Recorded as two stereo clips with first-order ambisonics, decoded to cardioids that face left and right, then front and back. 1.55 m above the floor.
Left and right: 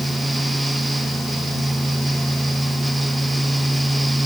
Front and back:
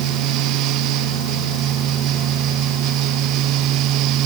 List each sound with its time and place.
Only background noise.